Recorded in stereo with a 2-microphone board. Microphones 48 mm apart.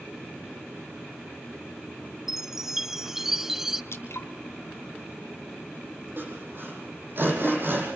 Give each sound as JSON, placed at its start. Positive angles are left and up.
{"t": 2.3, "sound": "a chime", "side_deg": -5, "distance_m": 0.6}
{"t": 3.9, "sound": "dripping", "side_deg": 65, "distance_m": 3.0}
{"t": 6.2, "sound": "sawing", "side_deg": -45, "distance_m": 9.0}